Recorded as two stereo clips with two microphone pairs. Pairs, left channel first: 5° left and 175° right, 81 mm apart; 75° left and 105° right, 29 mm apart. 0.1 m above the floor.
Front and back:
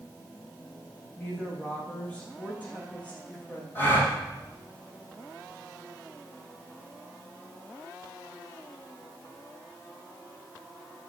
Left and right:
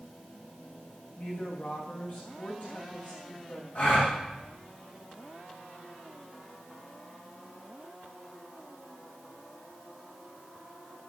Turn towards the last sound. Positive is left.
turn(degrees=65)